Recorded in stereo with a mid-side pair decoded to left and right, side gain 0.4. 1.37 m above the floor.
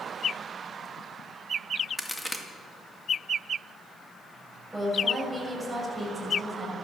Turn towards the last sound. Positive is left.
turn(degrees=-5)